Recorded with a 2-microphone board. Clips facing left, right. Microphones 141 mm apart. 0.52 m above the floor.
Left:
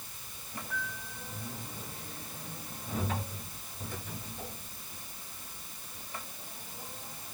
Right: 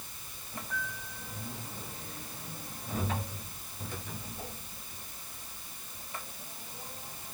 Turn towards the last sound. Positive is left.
No sound to turn to.